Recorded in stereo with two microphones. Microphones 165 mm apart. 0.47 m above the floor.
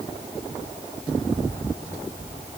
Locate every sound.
Only background noise.